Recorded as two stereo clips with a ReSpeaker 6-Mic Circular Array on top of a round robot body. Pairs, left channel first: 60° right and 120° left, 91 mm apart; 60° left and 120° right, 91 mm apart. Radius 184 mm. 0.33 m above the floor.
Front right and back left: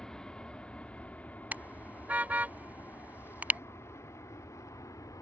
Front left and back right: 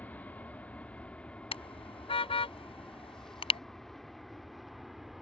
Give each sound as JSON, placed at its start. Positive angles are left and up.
{"t": 0.0, "sound": "an aircraft", "azimuth_deg": 15}
{"t": 1.5, "sound": "a car horn", "azimuth_deg": 45}